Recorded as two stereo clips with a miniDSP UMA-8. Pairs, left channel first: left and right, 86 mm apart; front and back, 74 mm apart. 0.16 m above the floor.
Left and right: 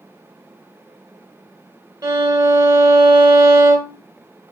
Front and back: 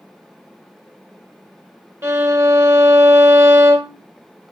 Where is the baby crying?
I don't hear a baby crying.